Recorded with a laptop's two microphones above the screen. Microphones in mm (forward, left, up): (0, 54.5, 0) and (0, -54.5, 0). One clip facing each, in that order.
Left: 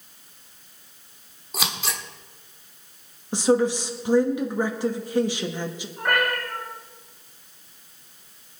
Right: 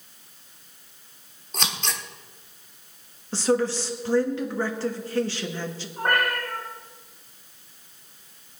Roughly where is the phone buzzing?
No phone buzzing in this recording.